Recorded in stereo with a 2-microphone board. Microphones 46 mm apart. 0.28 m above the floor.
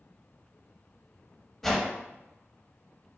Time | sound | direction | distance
1.6 | a whoosh | 5° left (ahead or behind) | 0.6 m